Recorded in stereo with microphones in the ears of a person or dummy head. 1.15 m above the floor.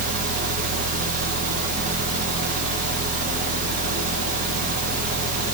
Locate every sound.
0.0 s a fan: 40° right (ahead or behind), 2.5 m